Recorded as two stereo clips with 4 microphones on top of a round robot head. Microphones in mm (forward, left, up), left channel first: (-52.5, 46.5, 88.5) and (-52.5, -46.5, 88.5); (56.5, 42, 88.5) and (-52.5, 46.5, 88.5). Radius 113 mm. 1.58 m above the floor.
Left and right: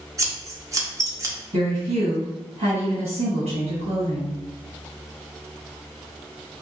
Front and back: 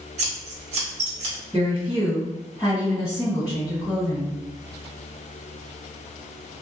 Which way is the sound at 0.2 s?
150° right.